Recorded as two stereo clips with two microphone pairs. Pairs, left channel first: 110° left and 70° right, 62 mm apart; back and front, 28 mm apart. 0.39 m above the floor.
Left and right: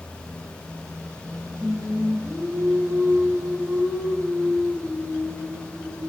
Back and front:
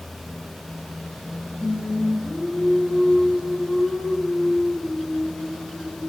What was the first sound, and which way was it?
Singing, 140° right.